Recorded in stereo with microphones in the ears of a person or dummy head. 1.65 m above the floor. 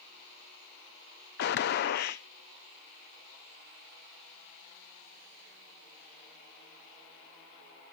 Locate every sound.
1.4 s a gunshot: 55° left (ahead or behind), 0.6 m